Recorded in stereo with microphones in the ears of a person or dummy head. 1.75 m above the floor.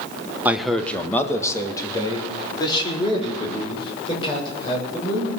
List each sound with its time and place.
0.5 s a man speaking: 5° right (ahead or behind), 1.1 m; by 5.3 s 35° left (ahead or behind), 8.5 m